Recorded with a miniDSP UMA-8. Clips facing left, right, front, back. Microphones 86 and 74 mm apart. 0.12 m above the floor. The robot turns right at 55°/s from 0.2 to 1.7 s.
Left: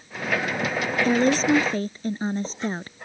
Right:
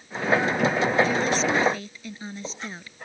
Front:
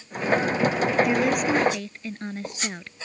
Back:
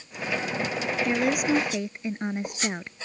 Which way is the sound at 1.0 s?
80° left.